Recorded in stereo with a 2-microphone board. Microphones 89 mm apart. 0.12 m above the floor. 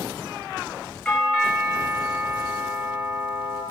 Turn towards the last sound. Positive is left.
turn(degrees=10)  # may be behind; listen again after turning